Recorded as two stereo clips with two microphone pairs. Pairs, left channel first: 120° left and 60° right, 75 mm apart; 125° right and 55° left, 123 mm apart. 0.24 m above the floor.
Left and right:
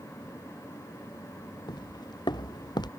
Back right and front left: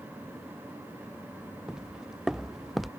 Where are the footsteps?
140° left; by 2.9 s 145° left.